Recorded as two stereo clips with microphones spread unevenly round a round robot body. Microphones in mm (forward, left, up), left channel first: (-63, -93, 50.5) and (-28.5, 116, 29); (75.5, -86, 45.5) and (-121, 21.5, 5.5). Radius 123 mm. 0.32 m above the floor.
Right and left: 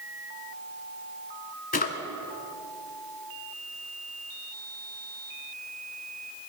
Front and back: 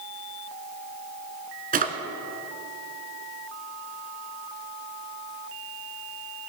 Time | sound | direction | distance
1.7 | a drawer | 155° right | 1.6 m